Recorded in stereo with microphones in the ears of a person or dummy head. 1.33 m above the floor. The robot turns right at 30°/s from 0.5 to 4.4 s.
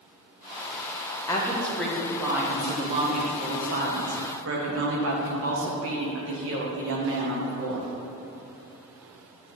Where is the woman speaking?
160° left, 1.1 m; by 7.9 s 105° right, 1.1 m.